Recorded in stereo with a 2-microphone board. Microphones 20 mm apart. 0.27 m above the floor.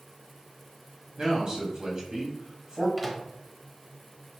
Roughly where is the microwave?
Centre.